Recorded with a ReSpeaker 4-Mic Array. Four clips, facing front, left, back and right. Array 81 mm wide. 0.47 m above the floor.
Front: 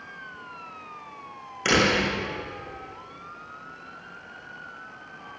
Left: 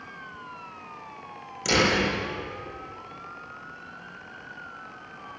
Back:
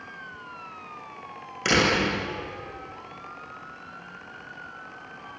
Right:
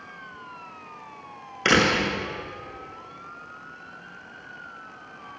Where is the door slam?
90° right, 5 m.